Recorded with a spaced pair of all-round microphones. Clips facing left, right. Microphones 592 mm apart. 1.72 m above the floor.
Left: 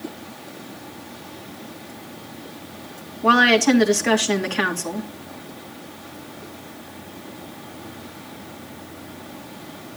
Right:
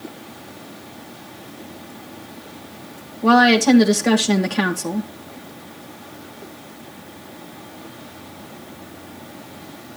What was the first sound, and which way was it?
A woman speaking, 60° right (ahead or behind).